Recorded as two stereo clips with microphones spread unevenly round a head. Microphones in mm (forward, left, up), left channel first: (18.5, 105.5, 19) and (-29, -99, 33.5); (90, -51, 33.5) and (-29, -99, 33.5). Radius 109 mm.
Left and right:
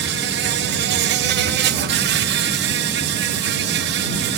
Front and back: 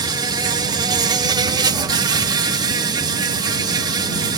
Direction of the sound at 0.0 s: 110° right.